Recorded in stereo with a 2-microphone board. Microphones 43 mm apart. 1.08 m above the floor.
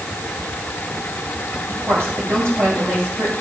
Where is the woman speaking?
85° right, 6.5 m; by 3.3 s 70° right (ahead or behind), 6 m.